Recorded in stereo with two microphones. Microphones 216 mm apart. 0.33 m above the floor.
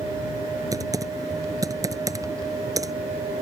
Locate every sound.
0.7 s typing on a keyboard: 15° right (ahead or behind)